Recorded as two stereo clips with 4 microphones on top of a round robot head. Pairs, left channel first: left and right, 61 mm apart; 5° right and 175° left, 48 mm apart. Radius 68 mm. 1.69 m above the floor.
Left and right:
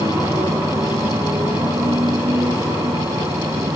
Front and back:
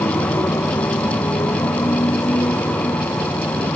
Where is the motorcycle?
45° right.